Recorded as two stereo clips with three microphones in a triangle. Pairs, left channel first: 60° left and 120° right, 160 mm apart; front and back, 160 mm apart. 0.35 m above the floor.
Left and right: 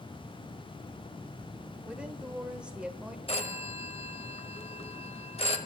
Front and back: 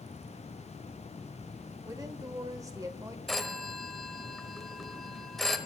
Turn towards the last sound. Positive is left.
turn(degrees=90)